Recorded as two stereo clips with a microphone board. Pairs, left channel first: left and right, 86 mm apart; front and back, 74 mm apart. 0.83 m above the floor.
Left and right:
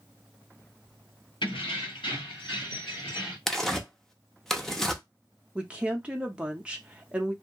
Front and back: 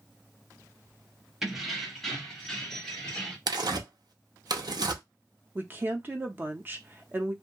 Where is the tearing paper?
175° left, 0.5 m.